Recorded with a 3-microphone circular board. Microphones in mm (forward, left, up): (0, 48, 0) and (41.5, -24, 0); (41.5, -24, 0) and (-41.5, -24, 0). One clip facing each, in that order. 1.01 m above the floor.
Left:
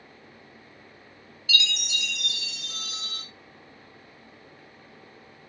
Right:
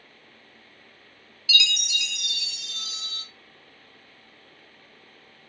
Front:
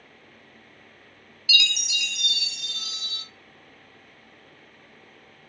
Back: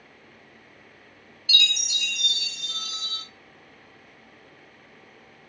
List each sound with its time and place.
1.5 s a chime: 150° left, 0.8 m